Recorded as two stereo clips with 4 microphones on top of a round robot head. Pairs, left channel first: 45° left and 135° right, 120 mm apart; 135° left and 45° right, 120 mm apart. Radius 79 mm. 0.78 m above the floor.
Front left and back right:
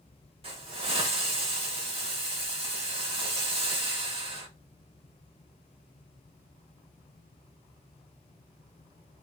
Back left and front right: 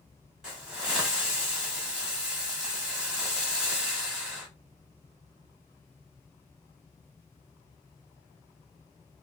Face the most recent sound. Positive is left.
turn(degrees=-125)